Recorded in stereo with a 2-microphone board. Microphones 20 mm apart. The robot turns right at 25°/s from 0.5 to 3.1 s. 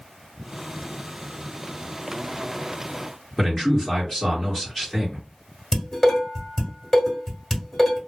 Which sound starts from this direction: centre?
A man speaking, at 3.4 s.